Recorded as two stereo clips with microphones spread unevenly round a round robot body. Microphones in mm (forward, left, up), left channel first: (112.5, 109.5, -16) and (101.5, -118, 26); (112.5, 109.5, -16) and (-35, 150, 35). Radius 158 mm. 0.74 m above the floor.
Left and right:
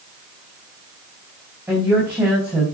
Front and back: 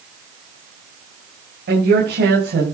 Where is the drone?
No drone in this recording.